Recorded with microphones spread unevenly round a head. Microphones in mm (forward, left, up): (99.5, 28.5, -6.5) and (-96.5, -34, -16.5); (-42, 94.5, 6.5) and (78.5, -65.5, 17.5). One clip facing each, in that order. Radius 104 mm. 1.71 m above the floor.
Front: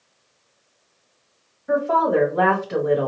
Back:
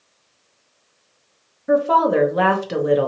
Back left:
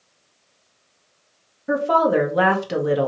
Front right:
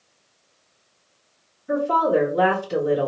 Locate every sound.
1.7 s a woman speaking: 150° left, 1.0 m